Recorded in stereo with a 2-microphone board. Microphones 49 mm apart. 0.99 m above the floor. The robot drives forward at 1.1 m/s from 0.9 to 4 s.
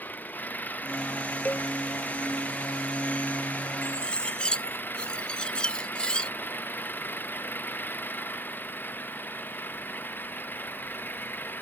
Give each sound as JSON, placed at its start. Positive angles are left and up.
{"t": 0.0, "sound": "an engine running", "side_deg": 40}
{"t": 1.4, "sound": "a cowbell", "side_deg": 35}
{"t": 3.8, "sound": "cutlery clinking", "side_deg": 20}